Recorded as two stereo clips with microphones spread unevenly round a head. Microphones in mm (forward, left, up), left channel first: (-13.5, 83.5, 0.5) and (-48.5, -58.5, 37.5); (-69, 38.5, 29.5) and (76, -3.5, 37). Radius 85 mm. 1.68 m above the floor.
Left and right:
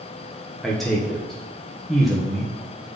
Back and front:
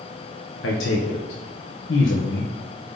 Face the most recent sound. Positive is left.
turn(degrees=170)